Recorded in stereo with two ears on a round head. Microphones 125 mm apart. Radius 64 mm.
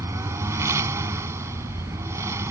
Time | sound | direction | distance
0.0 | a lawn mower | 20° right (ahead or behind) | ?